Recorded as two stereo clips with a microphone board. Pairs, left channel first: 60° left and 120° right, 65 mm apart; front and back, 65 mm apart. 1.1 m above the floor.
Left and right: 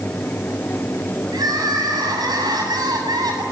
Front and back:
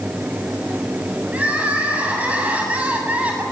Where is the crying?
110° right, 7 m.